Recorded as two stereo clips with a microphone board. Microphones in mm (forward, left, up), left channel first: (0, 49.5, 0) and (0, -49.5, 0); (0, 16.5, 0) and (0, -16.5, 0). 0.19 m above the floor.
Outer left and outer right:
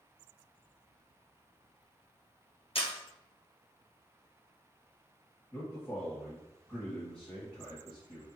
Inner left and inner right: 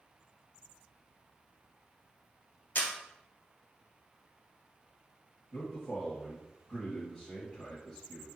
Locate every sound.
2.8 s a camera shutter: 70° left (ahead or behind), 1.6 m
5.5 s a man speaking: 10° left (ahead or behind), 1.6 m